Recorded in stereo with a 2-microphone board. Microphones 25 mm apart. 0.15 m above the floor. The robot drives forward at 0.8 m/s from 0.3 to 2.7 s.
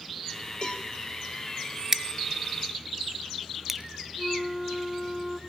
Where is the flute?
Centre (ahead or behind), 1.4 m.